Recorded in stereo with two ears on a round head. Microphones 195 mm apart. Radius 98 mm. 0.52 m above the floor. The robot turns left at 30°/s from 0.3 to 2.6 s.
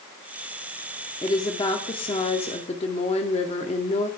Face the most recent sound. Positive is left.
turn(degrees=30)  # may be behind; listen again after turning